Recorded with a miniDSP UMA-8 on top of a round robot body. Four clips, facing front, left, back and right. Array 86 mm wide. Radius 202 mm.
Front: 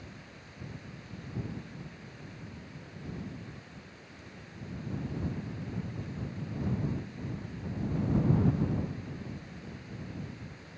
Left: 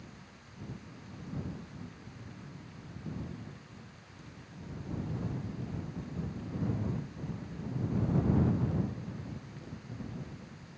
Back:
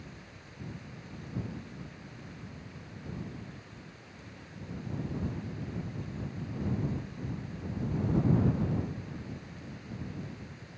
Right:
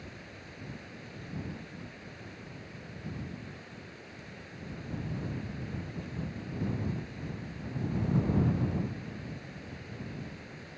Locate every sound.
0.0 s running water: 90° right